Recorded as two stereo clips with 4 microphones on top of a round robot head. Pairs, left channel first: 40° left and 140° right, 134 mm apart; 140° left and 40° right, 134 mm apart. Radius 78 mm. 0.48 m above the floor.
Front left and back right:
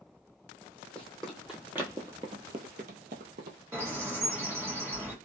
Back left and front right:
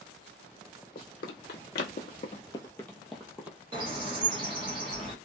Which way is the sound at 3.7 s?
75° right.